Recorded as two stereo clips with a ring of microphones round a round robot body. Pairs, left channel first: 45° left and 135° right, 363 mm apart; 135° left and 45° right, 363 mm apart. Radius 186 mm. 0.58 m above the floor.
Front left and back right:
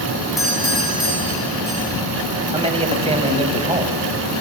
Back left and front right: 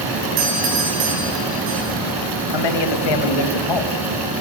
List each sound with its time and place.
0.4 s a doorbell: 45° right, 7.5 m
2.5 s a man speaking: 150° left, 3 m